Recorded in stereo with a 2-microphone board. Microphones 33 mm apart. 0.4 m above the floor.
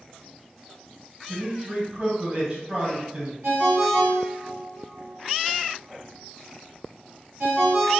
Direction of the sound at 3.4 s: 75° right (ahead or behind).